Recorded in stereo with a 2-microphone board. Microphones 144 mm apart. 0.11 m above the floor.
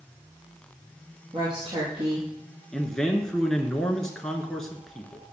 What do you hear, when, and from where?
1.3 s a woman speaking: 40° right (ahead or behind), 3.5 m
2.7 s a man speaking: 5° left (ahead or behind), 1.1 m